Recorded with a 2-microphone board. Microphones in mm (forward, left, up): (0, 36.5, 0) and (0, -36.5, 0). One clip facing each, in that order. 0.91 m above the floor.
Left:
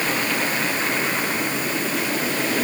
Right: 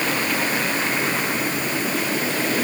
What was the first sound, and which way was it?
Only background noise.